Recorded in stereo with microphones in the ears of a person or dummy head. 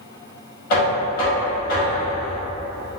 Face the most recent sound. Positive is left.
turn(degrees=55)  # may be behind; listen again after turning